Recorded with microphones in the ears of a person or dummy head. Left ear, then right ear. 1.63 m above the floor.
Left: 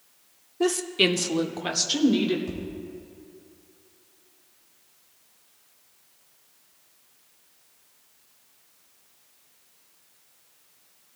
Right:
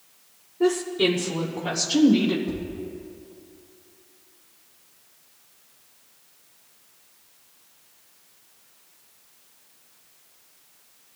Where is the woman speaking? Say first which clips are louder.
Right 1 dB; 80° left, 1.1 m; by 2.4 s 15° left (ahead or behind), 1.6 m.